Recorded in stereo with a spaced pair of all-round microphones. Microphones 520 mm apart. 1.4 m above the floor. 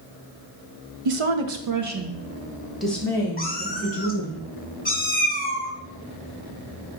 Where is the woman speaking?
80° right, 0.7 m; by 4.4 s 15° left (ahead or behind), 2 m.